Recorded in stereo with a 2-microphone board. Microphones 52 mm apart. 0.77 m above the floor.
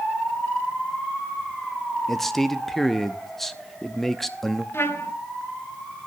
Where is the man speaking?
5° left (ahead or behind), 0.8 m.